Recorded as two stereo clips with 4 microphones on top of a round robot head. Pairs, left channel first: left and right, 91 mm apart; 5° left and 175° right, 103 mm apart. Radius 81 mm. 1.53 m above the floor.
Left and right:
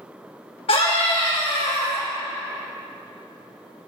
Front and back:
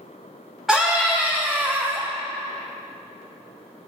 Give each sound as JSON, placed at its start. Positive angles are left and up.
{"t": 0.7, "sound": "a scream", "azimuth_deg": 95, "distance_m": 3.0}